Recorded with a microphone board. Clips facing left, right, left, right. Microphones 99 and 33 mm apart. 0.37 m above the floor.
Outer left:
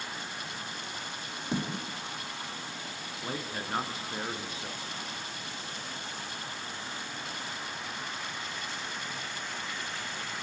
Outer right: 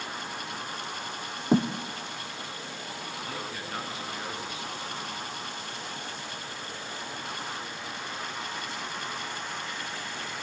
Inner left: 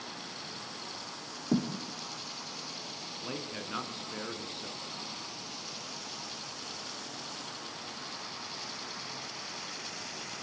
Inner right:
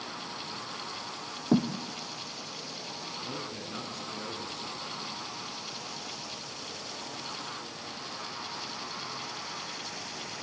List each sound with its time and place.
1.5 s a thud: 40° right (ahead or behind), 2.0 m
3.2 s a man speaking: 30° left (ahead or behind), 3.5 m